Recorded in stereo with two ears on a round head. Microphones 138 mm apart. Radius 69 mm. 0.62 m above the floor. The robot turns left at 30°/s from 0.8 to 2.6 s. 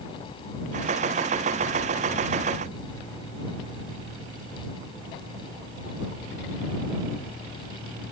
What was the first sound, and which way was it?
Only background noise.